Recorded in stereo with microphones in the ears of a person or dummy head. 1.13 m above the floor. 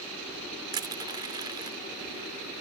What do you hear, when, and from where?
0.7 s crushing: 20° right (ahead or behind)